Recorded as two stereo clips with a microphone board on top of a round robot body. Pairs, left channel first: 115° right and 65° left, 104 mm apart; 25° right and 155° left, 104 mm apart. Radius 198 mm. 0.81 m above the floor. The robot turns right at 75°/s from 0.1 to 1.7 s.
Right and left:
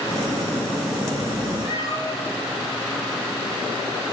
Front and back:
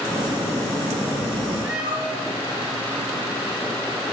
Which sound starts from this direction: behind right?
A cat meowing, at 1.6 s.